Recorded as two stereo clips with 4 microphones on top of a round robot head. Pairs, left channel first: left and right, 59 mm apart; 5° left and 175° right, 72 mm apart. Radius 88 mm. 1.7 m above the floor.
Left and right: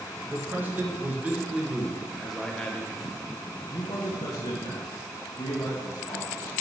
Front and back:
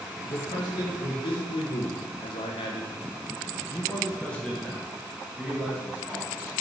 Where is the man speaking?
35° right, 1.9 m; by 6.5 s 105° left, 2 m.